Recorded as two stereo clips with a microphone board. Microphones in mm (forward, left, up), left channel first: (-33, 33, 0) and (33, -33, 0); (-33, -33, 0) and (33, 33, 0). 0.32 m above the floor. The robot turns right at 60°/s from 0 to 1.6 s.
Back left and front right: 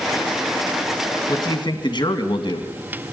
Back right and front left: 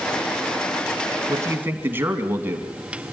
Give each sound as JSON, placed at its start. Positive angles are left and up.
{"t": 1.3, "sound": "a man speaking", "azimuth_deg": 90, "distance_m": 2.5}